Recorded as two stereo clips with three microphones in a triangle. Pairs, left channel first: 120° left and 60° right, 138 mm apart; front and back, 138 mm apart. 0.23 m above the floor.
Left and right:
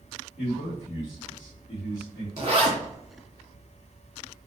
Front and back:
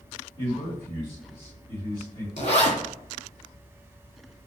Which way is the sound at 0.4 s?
15° left.